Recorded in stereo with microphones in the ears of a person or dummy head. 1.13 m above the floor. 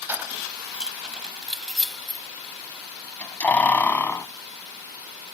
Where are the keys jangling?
5° right (ahead or behind); by 4.3 s 20° left (ahead or behind).